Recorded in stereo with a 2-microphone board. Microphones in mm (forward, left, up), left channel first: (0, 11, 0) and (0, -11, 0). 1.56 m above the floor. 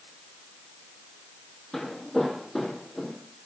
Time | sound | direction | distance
1.7 | footsteps | 25° left (ahead or behind) | 2.5 m